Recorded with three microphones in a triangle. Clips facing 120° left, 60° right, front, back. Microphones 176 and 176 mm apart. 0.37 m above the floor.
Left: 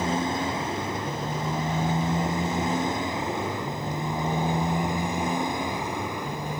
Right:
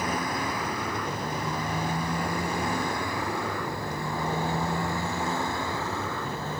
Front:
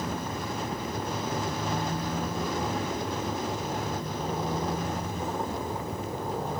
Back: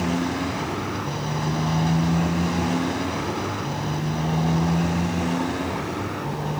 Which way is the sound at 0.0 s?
175° right.